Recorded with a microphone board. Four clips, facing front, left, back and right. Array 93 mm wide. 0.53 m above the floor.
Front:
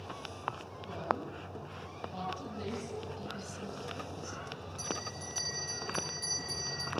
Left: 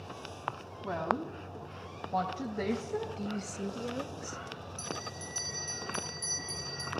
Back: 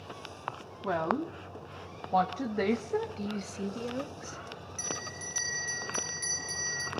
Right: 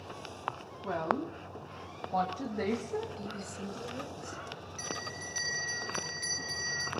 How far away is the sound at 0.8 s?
About 3 m.